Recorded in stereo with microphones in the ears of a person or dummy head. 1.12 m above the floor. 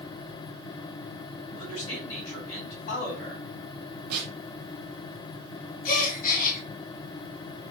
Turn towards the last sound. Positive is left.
turn(degrees=40)  # may be behind; listen again after turning